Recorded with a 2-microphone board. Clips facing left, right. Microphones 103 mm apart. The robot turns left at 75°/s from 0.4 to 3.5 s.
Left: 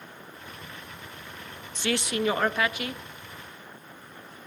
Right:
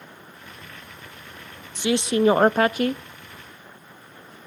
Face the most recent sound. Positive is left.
turn(degrees=-150)